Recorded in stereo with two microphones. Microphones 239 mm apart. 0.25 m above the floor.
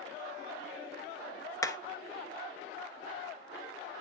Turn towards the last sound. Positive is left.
turn(degrees=15)  # may be behind; listen again after turning